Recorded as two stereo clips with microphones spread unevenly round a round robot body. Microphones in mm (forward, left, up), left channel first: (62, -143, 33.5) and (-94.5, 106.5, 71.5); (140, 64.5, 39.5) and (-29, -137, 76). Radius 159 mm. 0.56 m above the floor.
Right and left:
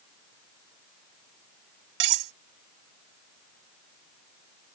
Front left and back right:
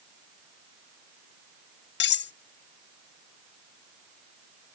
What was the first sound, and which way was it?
Cutlery clinking, 100° left.